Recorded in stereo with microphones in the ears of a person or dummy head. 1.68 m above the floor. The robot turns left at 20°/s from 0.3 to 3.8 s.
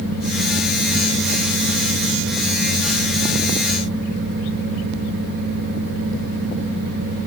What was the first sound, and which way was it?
Only background noise.